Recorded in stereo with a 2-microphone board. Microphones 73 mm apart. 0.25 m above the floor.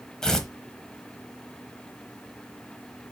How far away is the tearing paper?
About 1.1 m.